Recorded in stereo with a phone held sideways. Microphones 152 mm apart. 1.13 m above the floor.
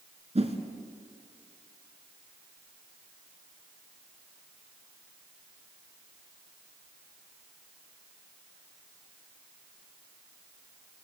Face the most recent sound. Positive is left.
turn(degrees=-45)  # may be behind; listen again after turning